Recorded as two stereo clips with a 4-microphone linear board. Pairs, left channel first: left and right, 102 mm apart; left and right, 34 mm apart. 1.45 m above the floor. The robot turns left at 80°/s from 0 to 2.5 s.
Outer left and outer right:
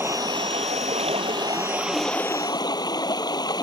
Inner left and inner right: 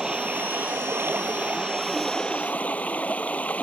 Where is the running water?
20° right; by 3.6 s 140° left.